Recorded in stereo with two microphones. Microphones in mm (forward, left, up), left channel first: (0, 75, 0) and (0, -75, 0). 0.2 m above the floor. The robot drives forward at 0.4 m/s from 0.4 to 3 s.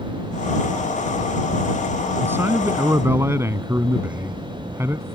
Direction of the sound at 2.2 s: 15° right (ahead or behind).